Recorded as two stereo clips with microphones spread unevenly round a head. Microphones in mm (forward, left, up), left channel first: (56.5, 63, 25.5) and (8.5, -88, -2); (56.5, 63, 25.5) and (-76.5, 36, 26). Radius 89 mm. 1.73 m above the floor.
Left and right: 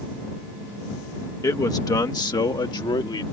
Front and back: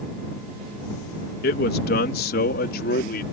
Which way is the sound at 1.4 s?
5° left.